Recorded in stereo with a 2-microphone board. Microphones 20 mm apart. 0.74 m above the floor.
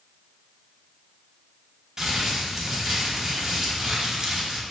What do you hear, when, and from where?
2.0 s crumpling: 25° right (ahead or behind), 1.0 m